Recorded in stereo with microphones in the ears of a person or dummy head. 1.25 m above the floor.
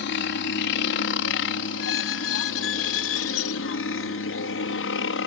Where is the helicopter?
60° left (ahead or behind); by 5.3 s 55° left (ahead or behind).